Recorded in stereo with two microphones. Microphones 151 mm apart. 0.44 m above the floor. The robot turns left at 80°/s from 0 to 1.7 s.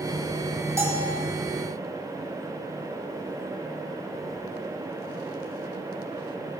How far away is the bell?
About 1.3 m.